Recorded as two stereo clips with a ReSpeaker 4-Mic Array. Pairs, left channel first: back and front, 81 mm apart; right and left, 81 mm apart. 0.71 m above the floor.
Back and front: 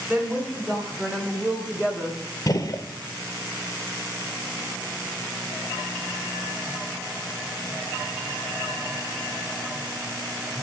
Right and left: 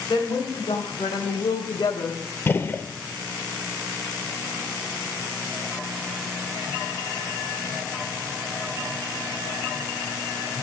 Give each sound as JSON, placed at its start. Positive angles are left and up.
{"t": 0.1, "sound": "a woman speaking", "azimuth_deg": -75, "distance_m": 2.5}
{"t": 2.5, "sound": "a gunshot", "azimuth_deg": -150, "distance_m": 0.6}